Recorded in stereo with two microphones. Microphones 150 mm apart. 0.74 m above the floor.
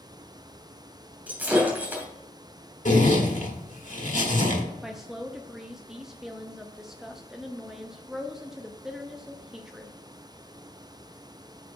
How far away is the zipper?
About 1.7 m.